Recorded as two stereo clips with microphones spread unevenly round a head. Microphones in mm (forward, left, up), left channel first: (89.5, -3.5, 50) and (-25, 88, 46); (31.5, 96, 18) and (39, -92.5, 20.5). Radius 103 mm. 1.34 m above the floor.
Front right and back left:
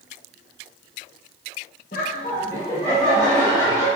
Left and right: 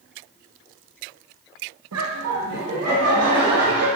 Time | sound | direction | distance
1.9 | laughter | 85° right | 1.2 m